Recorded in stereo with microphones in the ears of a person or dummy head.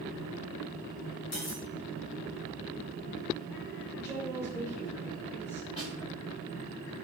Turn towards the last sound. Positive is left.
turn(degrees=30)  # may be behind; listen again after turning